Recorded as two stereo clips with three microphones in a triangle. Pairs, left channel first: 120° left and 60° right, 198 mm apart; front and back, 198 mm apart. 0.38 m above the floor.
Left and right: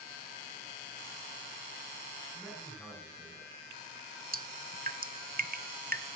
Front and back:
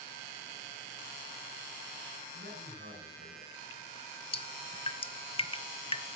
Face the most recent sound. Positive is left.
turn(degrees=-55)